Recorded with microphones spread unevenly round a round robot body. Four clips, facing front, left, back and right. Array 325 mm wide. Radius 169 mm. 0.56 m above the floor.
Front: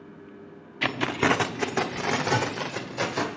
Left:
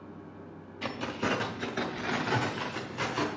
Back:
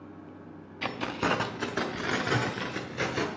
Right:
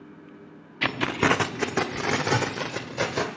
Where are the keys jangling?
65° right, 0.8 m; by 3.3 s 110° right, 1.8 m.